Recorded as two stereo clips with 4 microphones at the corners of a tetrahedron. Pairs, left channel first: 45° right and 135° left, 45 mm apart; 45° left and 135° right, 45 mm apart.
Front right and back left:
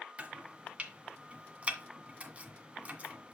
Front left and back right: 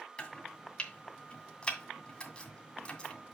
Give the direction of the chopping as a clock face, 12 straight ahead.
9 o'clock.